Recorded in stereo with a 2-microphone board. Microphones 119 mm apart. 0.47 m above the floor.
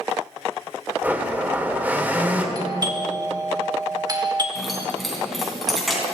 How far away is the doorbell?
About 1.4 m.